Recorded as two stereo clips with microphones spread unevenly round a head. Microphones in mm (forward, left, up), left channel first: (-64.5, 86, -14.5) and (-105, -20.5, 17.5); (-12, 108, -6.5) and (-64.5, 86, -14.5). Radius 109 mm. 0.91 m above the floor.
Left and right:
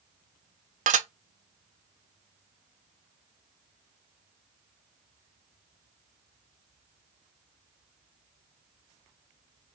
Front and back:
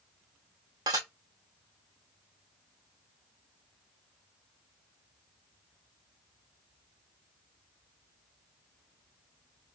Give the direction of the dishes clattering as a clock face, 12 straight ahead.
4 o'clock.